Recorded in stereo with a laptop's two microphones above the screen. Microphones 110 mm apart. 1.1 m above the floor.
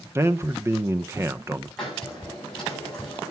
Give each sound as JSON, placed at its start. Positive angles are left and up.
{"t": 0.1, "sound": "a man speaking", "side_deg": -25, "distance_m": 0.5}
{"t": 1.8, "sound": "a hiss", "side_deg": 5, "distance_m": 7.0}